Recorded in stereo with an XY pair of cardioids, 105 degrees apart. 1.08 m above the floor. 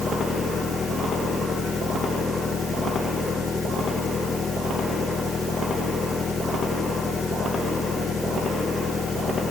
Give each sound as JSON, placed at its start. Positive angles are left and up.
{"t": 0.0, "sound": "an engine running", "azimuth_deg": 40}